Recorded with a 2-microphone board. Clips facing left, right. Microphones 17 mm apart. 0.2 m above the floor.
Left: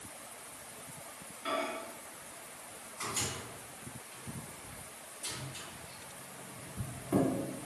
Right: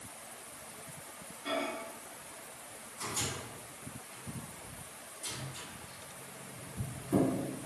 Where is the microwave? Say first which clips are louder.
Even; 40° left (ahead or behind), 1.7 m.